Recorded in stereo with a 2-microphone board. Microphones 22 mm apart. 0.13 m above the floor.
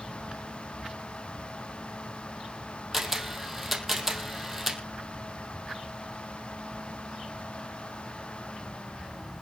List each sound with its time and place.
2.9 s a camera shutter: 15° right (ahead or behind), 3 m